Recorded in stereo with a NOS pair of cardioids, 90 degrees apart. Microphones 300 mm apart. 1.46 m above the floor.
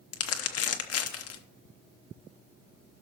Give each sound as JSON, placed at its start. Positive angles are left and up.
{"t": 0.1, "sound": "crumpling", "azimuth_deg": 55, "distance_m": 1.0}